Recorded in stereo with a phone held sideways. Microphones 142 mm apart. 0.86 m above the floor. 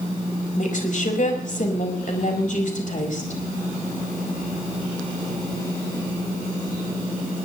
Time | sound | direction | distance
0.5 | a woman speaking | 60° left (ahead or behind) | 6 m